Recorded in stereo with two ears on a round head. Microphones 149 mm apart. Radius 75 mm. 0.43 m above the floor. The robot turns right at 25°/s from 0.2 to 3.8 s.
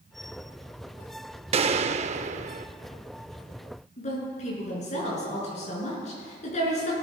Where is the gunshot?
35° right (ahead or behind), 0.5 m; by 2.7 s 45° right (ahead or behind), 0.5 m.